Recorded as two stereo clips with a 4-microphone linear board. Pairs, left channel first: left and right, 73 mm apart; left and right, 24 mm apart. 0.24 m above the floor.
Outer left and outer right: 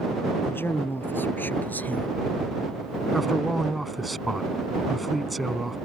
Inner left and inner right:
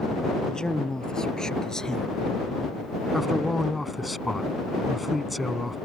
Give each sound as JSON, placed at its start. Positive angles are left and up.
{"t": 0.4, "sound": "a man speaking", "side_deg": 30}
{"t": 3.1, "sound": "a man speaking", "side_deg": 0}